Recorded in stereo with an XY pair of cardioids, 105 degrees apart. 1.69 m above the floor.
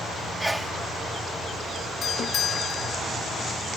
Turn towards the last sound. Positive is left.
turn(degrees=55)